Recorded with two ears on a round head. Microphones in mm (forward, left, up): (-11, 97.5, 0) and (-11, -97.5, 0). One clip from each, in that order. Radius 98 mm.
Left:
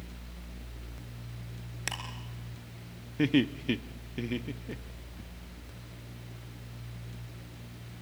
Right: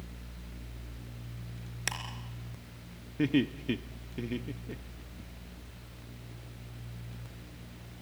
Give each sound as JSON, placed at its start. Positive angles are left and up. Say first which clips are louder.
{"t": 1.9, "sound": "ticking", "louder": "right 1 dB", "side_deg": -10, "distance_m": 3.0}
{"t": 3.2, "sound": "laughter", "louder": "left 2 dB", "side_deg": 15, "distance_m": 0.6}